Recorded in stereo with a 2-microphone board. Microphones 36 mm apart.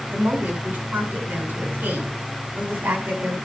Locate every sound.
0.1 s a woman speaking: 55° right (ahead or behind), 6.5 m